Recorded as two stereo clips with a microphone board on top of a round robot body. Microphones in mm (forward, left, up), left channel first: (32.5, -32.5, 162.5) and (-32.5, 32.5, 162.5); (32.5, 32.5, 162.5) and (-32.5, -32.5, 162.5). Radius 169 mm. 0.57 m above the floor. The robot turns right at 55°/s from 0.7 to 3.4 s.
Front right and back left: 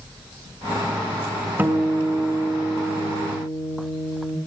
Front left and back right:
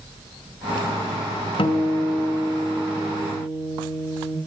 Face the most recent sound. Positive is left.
turn(degrees=165)